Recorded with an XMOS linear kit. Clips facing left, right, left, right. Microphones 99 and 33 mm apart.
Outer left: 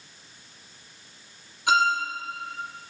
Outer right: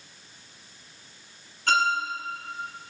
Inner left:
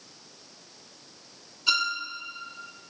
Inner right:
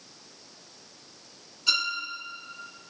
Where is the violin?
10° left (ahead or behind), 2 m.